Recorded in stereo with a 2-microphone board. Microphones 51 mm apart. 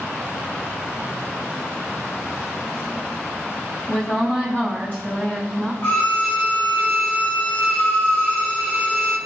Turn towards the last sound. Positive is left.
turn(degrees=40)  # may be behind; listen again after turning